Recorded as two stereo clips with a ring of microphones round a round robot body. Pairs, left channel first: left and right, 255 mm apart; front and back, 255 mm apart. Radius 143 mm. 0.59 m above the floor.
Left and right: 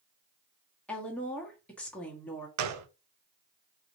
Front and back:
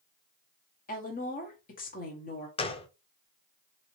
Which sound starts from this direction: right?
A gunshot, at 2.6 s.